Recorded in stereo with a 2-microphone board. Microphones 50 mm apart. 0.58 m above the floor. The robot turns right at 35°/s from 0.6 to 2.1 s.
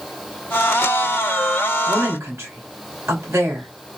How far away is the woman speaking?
About 2.5 m.